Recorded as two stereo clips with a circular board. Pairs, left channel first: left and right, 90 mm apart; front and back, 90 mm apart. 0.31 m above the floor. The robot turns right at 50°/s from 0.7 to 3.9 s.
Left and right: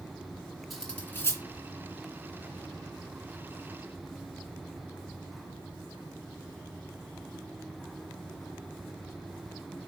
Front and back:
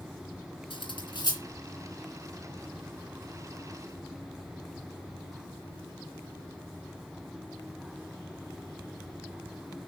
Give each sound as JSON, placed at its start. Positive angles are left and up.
{"t": 0.7, "sound": "cutlery clinking", "azimuth_deg": 0, "distance_m": 2.0}